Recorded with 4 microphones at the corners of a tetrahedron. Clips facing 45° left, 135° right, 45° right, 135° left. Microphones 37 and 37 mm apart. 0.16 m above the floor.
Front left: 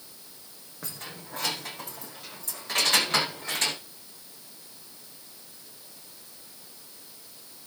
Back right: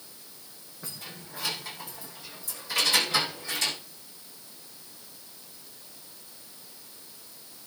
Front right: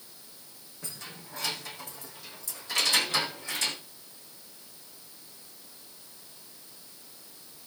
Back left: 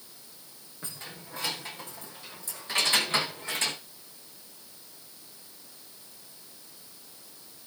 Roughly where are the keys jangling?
Left.